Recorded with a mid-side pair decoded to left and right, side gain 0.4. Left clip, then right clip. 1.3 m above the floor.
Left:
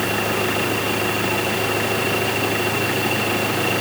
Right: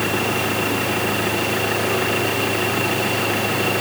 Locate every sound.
Only background noise.